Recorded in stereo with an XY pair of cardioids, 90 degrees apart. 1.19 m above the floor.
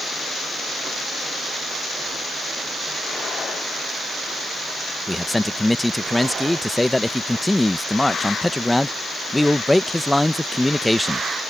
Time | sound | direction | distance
5.1 | a man speaking | 10° left | ?